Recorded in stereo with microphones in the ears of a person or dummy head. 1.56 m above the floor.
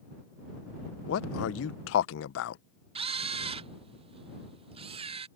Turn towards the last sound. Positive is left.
turn(degrees=-30)  # may be behind; listen again after turning